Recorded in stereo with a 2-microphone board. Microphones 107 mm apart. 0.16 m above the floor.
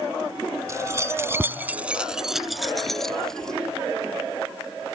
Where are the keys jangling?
30° right (ahead or behind); by 3.6 s 5° left (ahead or behind).